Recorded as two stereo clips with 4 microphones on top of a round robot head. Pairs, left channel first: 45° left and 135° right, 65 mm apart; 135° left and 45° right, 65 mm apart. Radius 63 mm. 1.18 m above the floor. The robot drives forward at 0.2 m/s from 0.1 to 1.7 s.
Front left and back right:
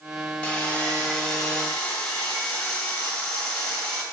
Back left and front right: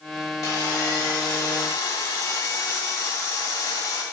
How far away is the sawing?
About 2.5 m.